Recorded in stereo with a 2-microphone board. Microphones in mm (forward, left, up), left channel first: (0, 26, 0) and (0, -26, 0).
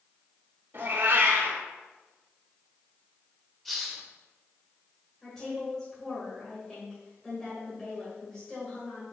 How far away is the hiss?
About 1.5 m.